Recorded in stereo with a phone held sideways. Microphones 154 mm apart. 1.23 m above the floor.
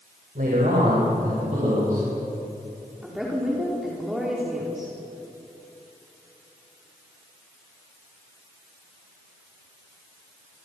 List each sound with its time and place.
0.3 s a man speaking: 65° right (ahead or behind), 5 m; by 2.0 s 55° right (ahead or behind), 7 m
3.0 s a woman speaking: 5° right (ahead or behind), 3.5 m